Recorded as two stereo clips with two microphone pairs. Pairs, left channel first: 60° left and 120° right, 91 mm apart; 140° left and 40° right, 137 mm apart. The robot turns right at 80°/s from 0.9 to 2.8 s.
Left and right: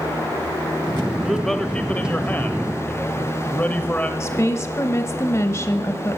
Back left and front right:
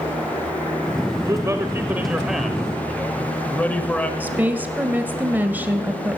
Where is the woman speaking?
30° left, 1.2 m.